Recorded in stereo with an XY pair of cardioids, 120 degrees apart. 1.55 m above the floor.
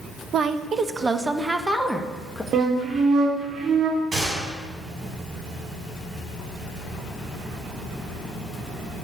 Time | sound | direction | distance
0.3 | a woman speaking | 50° right | 1.3 m
2.5 | a flute | 55° right | 3 m
4.1 | a gunshot | 30° right | 6.5 m